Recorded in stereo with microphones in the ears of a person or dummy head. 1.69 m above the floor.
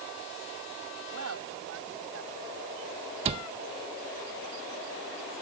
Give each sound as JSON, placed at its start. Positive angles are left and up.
{"t": 1.1, "sound": "a woman speaking", "side_deg": -85}
{"t": 3.2, "sound": "a cupboard door", "side_deg": -35}